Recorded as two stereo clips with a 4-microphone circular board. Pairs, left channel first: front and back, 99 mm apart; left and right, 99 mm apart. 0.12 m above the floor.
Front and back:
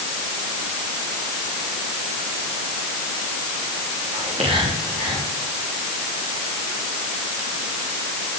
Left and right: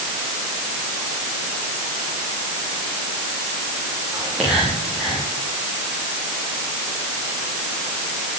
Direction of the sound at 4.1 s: 175° right.